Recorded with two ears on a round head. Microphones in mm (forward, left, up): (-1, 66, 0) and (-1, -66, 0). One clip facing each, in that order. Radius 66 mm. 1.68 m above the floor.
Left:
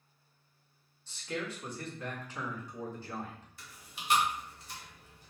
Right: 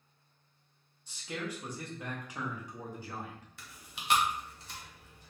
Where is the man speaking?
10° right (ahead or behind), 1.3 m.